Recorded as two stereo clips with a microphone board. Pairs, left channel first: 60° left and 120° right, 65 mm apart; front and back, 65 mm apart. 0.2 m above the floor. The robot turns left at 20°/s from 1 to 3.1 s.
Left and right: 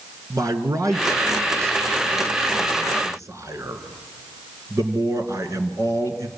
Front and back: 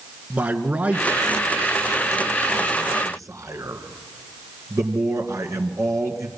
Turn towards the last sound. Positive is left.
turn(degrees=-155)